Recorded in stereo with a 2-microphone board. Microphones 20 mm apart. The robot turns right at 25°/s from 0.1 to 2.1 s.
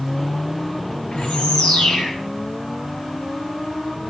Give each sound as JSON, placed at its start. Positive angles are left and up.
{"t": 1.1, "sound": "a bird", "side_deg": 85, "distance_m": 4.5}